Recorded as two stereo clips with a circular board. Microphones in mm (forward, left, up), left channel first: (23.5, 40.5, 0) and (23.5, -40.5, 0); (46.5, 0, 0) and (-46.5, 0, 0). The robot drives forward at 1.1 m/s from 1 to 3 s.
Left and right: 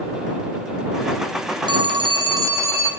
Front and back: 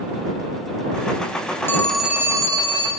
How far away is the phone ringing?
About 0.7 m.